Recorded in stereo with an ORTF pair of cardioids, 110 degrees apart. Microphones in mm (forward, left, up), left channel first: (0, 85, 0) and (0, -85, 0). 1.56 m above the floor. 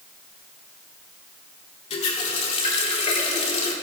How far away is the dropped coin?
I don't hear a dropped coin.